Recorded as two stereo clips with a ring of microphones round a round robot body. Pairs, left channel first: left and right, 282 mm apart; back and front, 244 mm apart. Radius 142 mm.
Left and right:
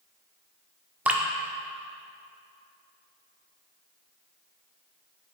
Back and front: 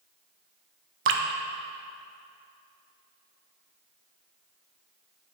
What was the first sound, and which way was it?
Dripping, 5° right.